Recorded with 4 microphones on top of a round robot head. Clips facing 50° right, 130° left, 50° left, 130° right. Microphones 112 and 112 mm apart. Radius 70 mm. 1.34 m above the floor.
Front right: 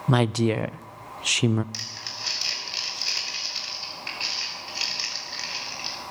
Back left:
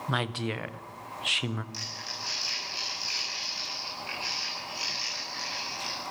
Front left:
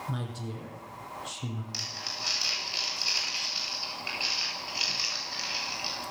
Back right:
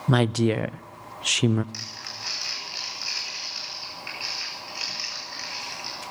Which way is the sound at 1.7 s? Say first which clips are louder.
Even, even; 20° right.